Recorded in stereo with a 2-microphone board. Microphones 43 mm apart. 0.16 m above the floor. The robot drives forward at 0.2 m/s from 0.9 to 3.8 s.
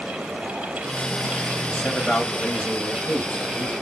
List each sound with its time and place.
1.7 s a man speaking: 35° left (ahead or behind), 1.9 m